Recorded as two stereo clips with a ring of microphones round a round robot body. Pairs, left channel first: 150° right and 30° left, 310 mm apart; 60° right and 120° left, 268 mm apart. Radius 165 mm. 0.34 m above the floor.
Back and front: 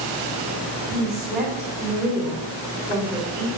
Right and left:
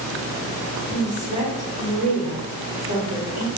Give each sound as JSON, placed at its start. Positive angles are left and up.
{"t": 0.9, "sound": "a woman speaking", "azimuth_deg": 70, "distance_m": 1.2}